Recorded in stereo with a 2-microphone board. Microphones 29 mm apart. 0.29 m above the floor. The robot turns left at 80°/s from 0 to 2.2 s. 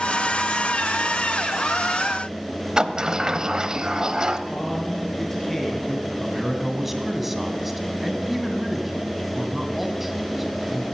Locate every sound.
2.8 s a sliding door: 30° right (ahead or behind), 0.8 m
4.5 s a man speaking: 5° left (ahead or behind), 4.5 m
6.2 s a man speaking: 10° right (ahead or behind), 2 m